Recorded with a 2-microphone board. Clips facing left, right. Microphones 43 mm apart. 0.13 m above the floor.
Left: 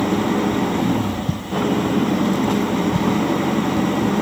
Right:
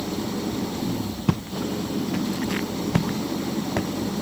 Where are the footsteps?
90° right; by 3.9 s 70° right (ahead or behind).